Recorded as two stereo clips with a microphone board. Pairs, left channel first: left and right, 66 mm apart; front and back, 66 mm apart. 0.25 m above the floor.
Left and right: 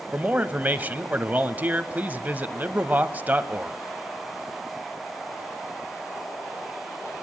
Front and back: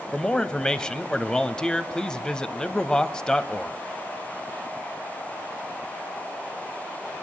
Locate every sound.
0.1 s a man speaking: 65° right, 1.0 m